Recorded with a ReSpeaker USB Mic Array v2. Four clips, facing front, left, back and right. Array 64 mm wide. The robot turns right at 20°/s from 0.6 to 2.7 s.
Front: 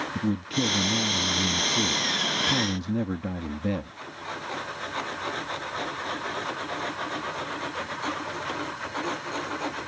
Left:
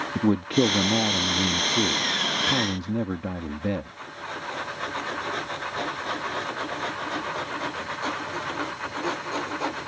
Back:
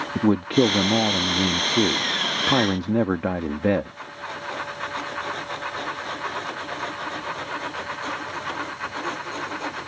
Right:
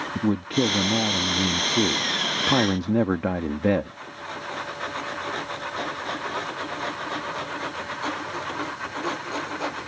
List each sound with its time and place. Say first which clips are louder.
0.1 s a man speaking: left 2 dB, back 11 dB; 170° left; by 4.0 s 145° right